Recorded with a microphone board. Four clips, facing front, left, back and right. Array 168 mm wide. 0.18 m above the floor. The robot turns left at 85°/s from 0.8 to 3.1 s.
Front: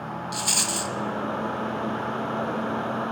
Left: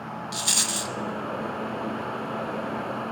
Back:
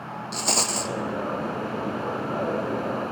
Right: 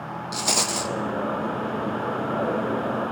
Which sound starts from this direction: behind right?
A rattle, at 0.3 s.